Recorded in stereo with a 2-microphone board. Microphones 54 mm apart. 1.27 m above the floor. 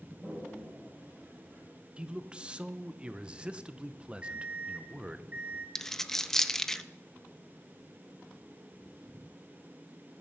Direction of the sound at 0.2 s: 30° right (ahead or behind).